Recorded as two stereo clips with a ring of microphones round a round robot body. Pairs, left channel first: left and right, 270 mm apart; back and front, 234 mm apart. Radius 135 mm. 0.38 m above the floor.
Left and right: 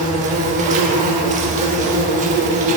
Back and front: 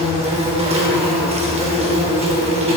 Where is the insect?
50° right, 0.7 m.